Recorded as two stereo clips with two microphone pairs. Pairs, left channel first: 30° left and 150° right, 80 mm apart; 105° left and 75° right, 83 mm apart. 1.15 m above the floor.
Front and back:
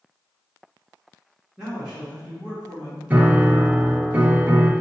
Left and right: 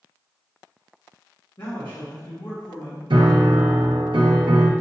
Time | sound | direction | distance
1.6 | a man speaking | 125° left | 1.5 m
3.1 | a piano | 85° right | 0.6 m